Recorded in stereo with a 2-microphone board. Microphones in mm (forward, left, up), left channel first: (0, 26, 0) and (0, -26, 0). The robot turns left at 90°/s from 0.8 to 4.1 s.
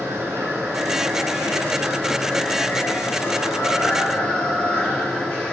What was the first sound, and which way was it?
Running water, 40° right.